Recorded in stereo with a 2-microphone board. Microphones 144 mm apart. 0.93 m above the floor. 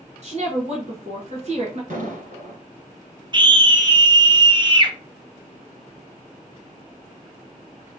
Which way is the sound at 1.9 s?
65° right (ahead or behind).